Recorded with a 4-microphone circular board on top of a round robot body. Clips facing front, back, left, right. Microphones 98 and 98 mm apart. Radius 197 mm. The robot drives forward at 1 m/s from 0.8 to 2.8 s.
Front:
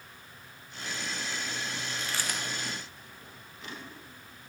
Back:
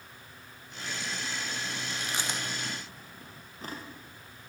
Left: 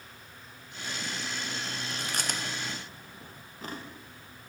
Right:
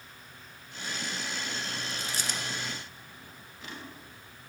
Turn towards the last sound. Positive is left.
turn(degrees=135)